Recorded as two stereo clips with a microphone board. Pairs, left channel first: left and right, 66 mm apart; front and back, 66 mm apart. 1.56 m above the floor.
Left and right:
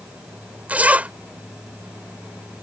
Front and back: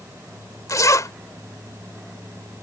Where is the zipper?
25° right.